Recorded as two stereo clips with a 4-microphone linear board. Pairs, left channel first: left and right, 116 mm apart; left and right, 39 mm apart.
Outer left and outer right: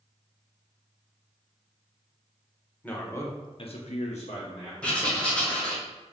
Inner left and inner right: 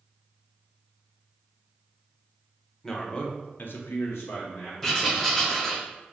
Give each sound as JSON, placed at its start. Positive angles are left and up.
{"t": 2.8, "sound": "a man speaking", "side_deg": 10, "distance_m": 0.9}
{"t": 4.8, "sound": "writing", "side_deg": 10, "distance_m": 1.0}